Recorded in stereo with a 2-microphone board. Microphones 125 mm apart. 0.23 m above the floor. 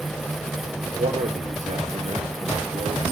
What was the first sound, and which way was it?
A man speaking, 70° right (ahead or behind).